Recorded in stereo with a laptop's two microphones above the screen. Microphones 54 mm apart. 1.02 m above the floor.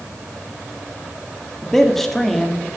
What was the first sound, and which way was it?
A man speaking, 5° left (ahead or behind).